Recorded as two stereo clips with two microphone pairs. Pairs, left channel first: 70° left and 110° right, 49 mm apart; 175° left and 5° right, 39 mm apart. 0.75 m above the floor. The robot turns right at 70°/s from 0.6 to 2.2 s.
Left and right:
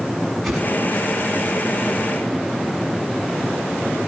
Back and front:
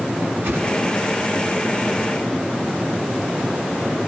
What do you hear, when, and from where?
0.4 s a whoosh: 20° right, 8 m; by 0.7 s 15° right, 8 m